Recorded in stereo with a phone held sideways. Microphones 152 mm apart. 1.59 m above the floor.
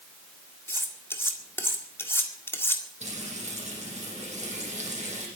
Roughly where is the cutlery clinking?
Centre.